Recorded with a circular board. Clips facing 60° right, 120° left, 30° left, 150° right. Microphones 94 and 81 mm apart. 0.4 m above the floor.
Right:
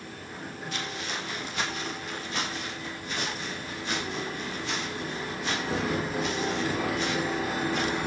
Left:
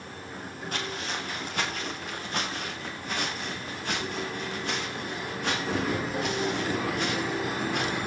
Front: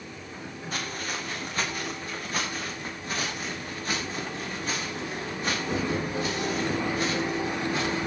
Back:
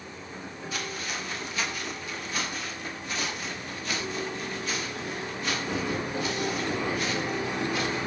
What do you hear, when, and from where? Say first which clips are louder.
0.7 s footsteps: left 2 dB, front 1 dB; 75° left, 6 m; by 8.0 s 85° left, 11 m